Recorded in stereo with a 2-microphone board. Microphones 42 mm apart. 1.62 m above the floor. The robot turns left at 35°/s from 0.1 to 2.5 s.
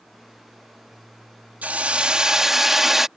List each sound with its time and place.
1.6 s a hiss: 140° right; by 3.1 s 170° right